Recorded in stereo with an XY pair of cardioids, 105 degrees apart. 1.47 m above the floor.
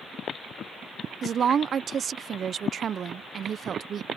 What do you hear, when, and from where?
1.2 s a woman speaking: 50° right